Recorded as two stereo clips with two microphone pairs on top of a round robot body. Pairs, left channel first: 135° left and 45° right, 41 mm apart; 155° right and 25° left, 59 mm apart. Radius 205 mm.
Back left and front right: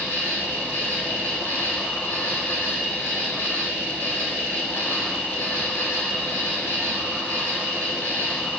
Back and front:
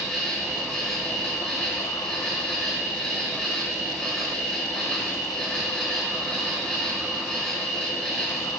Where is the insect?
115° left, 4.5 m.